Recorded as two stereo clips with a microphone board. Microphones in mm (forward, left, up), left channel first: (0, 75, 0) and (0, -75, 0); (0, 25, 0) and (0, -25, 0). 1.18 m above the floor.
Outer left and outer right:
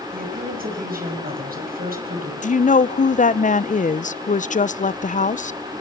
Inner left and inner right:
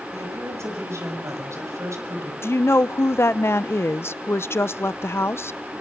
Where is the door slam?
I don't hear a door slam.